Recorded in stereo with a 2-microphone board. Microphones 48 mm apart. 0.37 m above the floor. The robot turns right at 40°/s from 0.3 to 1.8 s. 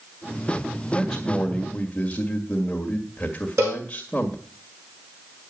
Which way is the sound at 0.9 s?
10° left.